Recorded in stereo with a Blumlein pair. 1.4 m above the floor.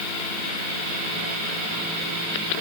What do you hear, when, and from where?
Only background noise.